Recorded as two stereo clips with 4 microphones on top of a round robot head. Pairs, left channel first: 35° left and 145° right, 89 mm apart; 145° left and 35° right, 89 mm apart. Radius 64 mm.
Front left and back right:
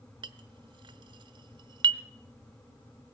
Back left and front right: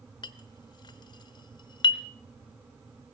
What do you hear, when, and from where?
0.2 s a clink: 175° right, 0.9 m